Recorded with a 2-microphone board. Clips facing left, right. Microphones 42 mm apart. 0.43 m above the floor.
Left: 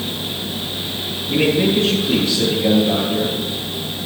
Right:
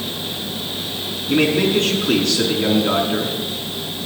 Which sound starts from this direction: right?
A man speaking, at 1.3 s.